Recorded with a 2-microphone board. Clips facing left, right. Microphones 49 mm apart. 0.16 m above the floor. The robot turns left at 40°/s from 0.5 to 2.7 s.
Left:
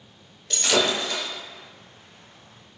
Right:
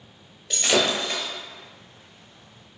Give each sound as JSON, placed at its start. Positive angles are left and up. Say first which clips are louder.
{"t": 0.5, "sound": "breaking glass", "louder": "even", "side_deg": -5, "distance_m": 1.4}